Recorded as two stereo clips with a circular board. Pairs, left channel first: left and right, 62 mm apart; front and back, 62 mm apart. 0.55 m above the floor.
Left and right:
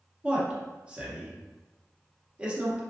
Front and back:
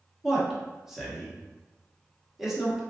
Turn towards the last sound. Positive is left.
turn(degrees=-105)